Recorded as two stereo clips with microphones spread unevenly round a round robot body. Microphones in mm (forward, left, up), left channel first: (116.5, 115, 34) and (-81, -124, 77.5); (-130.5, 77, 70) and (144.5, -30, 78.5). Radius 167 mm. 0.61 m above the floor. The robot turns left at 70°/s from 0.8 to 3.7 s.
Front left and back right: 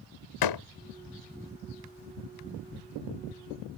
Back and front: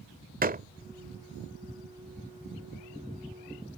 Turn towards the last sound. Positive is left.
turn(degrees=-160)